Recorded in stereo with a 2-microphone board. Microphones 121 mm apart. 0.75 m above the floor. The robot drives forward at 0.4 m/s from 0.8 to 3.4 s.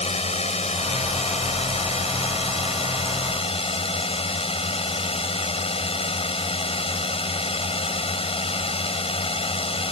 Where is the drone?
65° left (ahead or behind); by 9.9 s 55° left (ahead or behind).